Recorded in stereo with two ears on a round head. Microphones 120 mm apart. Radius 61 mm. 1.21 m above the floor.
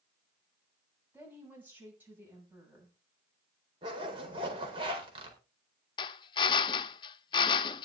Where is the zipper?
40° right (ahead or behind), 4 m.